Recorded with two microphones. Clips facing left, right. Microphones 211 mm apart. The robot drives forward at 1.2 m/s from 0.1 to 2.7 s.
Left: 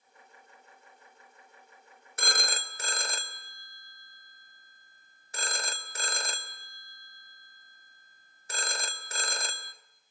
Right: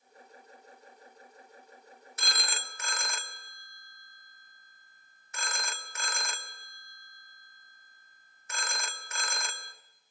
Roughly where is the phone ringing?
Left.